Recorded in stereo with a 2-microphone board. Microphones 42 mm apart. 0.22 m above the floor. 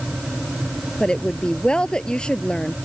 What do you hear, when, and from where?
1.0 s a woman speaking: 20° left (ahead or behind)